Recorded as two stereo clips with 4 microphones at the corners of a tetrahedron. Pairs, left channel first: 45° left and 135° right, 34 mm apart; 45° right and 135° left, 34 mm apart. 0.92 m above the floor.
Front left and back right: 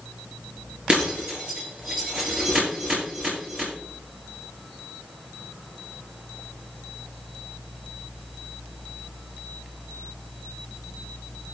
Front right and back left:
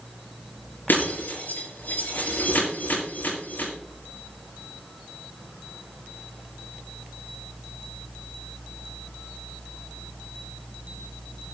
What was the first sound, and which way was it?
Breaking glass, 75° right.